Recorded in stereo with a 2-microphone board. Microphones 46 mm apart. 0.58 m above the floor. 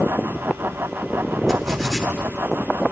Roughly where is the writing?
Centre.